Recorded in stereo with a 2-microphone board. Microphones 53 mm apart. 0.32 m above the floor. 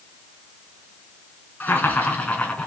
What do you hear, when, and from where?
1.6 s laughter: 35° left (ahead or behind), 4 m; by 2.7 s 20° left (ahead or behind), 3.5 m